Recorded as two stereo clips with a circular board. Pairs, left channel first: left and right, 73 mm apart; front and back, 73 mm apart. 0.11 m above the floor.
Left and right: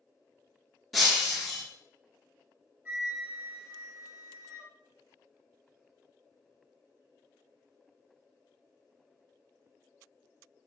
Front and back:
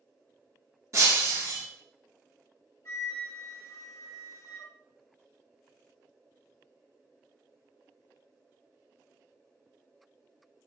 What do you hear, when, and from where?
0.9 s breaking glass: straight behind, 1.2 m
2.9 s a flute: 30° right, 1.3 m